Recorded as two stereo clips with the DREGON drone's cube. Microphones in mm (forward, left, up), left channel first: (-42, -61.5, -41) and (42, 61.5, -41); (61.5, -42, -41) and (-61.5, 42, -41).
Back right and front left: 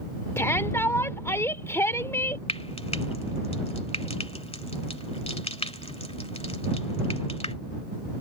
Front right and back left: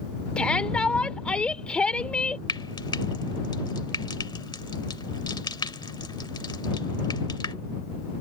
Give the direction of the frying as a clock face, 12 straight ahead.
3 o'clock.